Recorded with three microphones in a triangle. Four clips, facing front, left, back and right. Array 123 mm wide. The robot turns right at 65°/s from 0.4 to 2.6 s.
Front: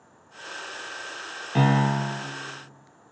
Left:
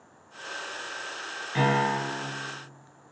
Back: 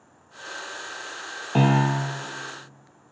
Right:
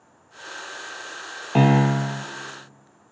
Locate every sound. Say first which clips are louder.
1.6 s a piano: right 6 dB, back 1 dB; 120° right, 1.8 m; by 2.2 s 75° right, 1.8 m